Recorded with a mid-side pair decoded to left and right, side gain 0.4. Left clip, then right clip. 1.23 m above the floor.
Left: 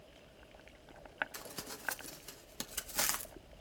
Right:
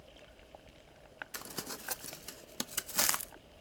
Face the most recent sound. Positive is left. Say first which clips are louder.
# right 3 dB
turn(degrees=-40)